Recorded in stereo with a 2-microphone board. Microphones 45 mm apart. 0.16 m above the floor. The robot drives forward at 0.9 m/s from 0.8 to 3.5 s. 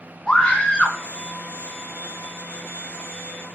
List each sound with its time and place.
0.3 s a scream: 25° left (ahead or behind), 1.9 m